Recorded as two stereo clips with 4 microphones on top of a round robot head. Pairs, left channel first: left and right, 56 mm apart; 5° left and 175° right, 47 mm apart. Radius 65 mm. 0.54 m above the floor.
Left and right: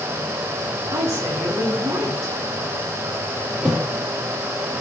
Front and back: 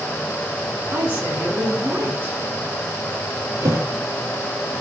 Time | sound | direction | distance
0.9 | a woman speaking | 125° right | 8 m
3.6 | a thud | 165° right | 3.5 m